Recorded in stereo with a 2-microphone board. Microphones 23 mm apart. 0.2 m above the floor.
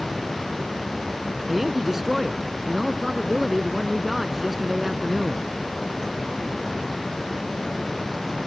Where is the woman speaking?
5° right (ahead or behind).